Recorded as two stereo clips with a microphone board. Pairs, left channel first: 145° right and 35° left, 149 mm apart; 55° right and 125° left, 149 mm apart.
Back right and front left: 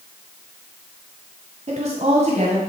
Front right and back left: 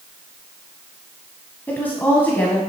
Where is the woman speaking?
20° left, 1.7 m.